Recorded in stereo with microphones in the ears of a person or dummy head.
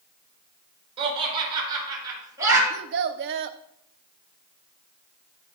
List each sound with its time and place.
1.0 s laughter: 30° right (ahead or behind), 6 m; by 2.6 s 15° right (ahead or behind), 6 m
2.7 s a child speaking: 60° right (ahead or behind), 0.8 m